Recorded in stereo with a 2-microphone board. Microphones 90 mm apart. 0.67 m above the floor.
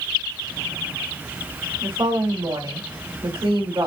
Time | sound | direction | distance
1.8 | a woman speaking | 60° right (ahead or behind) | 2 m